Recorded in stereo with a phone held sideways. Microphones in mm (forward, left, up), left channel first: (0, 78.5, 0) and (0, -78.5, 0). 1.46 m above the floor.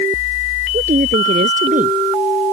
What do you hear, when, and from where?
0.7 s a woman speaking: 60° right (ahead or behind)